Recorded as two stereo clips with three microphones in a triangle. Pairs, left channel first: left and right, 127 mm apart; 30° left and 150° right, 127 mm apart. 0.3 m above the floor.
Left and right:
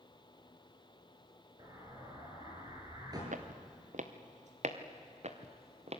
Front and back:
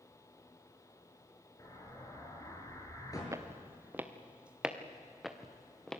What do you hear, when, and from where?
1.6 s an explosion: 30° right, 6 m
3.3 s footsteps: 80° right, 1.9 m; by 6.0 s 55° right, 3 m